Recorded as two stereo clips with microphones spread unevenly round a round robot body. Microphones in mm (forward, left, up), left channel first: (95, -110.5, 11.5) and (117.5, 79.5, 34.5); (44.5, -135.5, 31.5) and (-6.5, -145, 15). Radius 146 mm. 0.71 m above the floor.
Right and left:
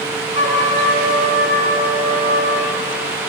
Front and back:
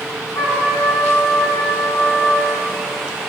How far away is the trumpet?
About 8 m.